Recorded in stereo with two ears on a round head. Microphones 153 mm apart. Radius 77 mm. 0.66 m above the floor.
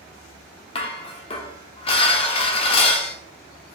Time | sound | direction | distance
0.8 | dishes clattering | 30° left (ahead or behind) | 0.7 m